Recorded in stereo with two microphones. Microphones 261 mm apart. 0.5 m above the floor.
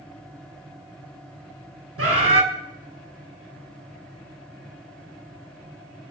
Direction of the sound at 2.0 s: 55° right (ahead or behind).